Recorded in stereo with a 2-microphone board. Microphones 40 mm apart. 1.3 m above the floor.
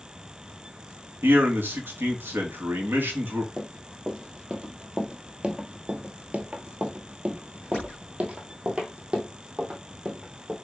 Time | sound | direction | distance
1.2 | a man speaking | 65° right (ahead or behind) | 2.5 m
3.6 | running footsteps | 10° right (ahead or behind) | 2 m